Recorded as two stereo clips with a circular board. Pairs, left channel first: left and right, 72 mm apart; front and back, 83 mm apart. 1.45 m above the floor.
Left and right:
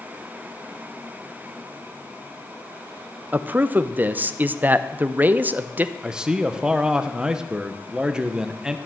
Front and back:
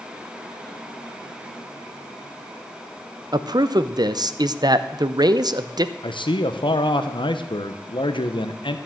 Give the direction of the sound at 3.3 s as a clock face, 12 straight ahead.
5 o'clock.